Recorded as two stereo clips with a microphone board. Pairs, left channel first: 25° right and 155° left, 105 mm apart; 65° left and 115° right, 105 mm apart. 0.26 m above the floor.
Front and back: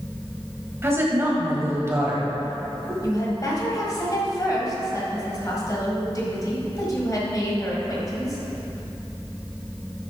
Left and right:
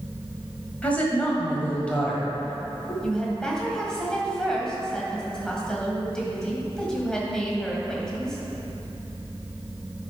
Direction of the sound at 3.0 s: 10° right.